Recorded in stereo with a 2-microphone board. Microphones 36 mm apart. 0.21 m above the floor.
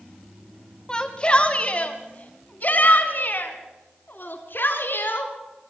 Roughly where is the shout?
Centre.